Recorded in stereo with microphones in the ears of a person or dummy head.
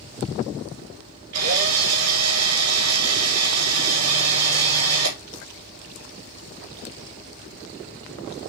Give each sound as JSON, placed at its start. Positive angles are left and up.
{"t": 1.3, "sound": "a drill", "side_deg": -85, "distance_m": 3.5}